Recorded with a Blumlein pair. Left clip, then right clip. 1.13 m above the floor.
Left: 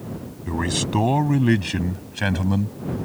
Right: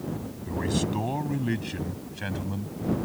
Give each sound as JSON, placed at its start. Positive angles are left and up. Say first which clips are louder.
{"t": 0.5, "sound": "a man speaking", "louder": "left 5 dB", "azimuth_deg": 65}